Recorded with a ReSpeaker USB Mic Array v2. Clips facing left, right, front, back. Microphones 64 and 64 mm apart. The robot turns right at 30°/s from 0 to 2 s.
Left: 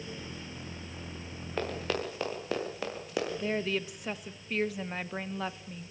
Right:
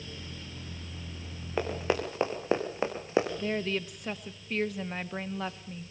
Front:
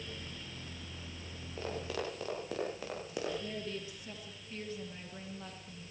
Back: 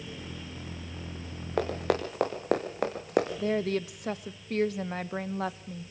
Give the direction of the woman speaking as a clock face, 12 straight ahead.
6 o'clock.